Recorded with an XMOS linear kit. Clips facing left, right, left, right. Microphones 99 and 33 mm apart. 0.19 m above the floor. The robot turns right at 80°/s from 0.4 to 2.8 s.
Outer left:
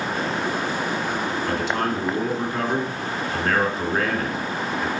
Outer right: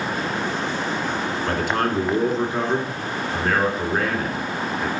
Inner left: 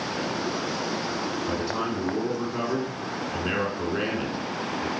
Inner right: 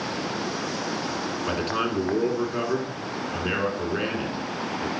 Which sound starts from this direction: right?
A man speaking, at 1.5 s.